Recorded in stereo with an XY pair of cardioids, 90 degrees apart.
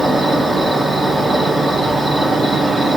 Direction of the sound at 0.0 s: 25° right.